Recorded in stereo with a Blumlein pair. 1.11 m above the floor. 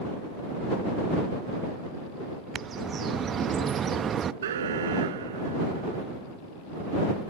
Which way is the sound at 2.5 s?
25° right.